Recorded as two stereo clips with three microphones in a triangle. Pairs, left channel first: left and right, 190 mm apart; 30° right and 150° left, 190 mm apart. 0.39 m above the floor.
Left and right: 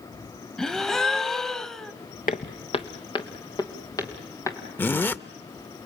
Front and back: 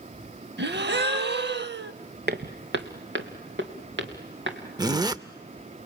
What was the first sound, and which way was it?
A gasp, straight behind.